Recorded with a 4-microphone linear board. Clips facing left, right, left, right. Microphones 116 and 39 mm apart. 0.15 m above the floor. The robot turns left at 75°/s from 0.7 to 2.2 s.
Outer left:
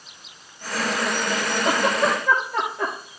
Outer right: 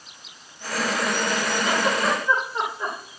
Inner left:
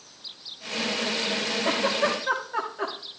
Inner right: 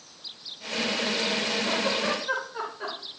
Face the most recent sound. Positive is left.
turn(degrees=80)